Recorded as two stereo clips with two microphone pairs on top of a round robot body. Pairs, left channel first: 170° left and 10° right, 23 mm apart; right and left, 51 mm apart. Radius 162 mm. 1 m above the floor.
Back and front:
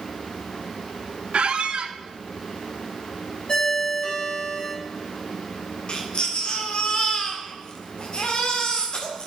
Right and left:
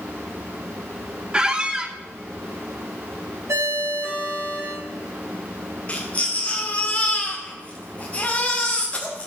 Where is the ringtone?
110° left, 6 m.